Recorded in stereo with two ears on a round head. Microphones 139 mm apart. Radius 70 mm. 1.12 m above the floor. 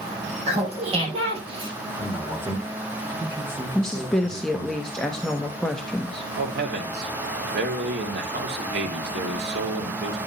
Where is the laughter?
45° right (ahead or behind), 6.5 m; by 1.7 s 35° right (ahead or behind), 6.5 m.